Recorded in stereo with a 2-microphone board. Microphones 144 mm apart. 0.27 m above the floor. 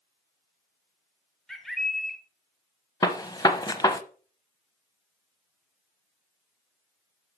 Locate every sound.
1.5 s a bird: centre (ahead or behind), 1.2 m
3.0 s a gunshot: 25° left (ahead or behind), 0.8 m